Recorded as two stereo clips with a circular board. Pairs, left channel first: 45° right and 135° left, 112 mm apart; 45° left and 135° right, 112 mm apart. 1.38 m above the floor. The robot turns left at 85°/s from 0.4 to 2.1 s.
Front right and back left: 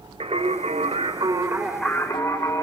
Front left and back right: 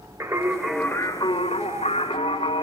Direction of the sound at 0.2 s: 160° left.